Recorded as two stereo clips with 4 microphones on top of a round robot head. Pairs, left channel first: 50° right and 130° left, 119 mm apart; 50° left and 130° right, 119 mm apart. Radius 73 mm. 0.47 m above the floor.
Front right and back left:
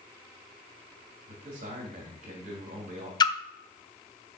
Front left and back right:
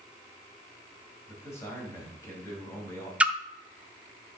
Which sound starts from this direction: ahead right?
A splash, at 3.2 s.